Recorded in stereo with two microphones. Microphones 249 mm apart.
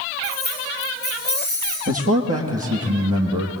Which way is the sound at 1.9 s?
70° right (ahead or behind).